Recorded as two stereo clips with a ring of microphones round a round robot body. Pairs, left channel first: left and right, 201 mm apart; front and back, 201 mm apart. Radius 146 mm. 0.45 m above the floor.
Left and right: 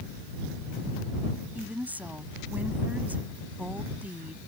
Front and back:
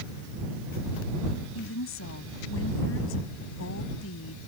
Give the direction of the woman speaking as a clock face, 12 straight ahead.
12 o'clock.